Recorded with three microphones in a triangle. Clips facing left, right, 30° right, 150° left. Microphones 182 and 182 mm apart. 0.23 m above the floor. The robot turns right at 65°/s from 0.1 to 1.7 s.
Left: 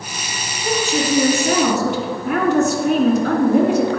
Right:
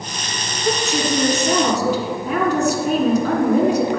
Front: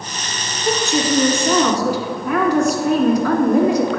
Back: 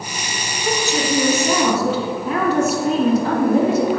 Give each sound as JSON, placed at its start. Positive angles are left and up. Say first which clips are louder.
{"t": 0.6, "sound": "a woman speaking", "louder": "left 1 dB, front 2 dB", "azimuth_deg": 20, "distance_m": 1.9}